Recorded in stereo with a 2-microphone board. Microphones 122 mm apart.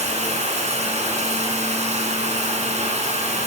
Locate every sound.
0.0 s running water: 65° right (ahead or behind), 7.5 m